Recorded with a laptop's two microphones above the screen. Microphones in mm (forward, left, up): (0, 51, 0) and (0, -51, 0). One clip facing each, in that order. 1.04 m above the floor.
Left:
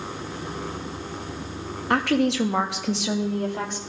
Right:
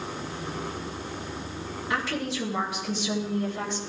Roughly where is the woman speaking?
Left.